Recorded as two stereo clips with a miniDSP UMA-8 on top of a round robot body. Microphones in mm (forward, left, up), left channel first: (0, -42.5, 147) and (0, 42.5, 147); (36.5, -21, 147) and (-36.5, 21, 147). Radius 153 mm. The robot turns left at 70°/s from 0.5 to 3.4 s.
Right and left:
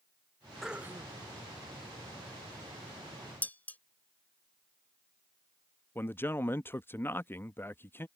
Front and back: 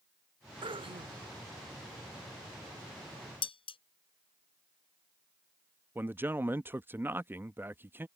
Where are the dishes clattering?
20° right.